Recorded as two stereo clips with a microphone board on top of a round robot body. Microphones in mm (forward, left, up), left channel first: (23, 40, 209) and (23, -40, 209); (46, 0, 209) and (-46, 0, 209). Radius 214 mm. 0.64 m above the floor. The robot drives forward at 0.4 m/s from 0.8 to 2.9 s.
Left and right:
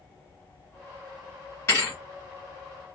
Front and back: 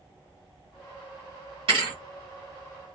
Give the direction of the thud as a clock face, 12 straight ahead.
7 o'clock.